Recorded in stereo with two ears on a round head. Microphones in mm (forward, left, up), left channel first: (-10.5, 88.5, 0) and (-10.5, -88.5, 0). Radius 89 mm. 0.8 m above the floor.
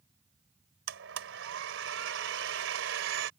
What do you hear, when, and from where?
0.9 s a blender: 65° right (ahead or behind)